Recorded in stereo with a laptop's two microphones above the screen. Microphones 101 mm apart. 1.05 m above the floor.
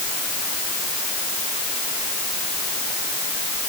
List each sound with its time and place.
Only background noise.